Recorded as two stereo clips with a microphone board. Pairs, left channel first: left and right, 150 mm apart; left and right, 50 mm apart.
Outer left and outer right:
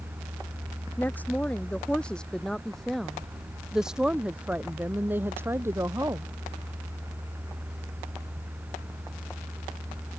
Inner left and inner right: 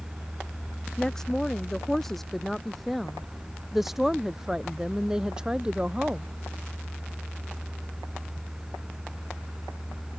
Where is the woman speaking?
10° left (ahead or behind); by 6.3 s 20° right (ahead or behind).